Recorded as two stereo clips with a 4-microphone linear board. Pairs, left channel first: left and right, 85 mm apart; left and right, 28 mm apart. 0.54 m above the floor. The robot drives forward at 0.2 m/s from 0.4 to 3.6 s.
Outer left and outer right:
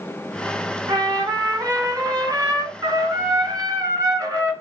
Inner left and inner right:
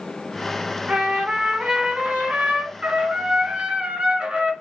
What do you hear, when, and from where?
0.9 s a trumpet: 45° right (ahead or behind), 1.9 m; by 4.5 s 40° right (ahead or behind), 2 m